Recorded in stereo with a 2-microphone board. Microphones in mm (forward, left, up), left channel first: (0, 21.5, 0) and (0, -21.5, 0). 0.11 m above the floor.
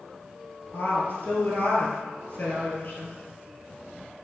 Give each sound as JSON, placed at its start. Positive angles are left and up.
{"t": 0.7, "sound": "a woman speaking", "side_deg": 45, "distance_m": 2.0}